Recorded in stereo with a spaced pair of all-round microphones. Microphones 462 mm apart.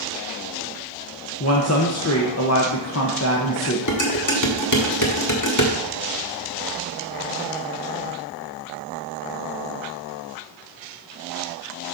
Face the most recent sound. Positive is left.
turn(degrees=40)  # may be behind; listen again after turning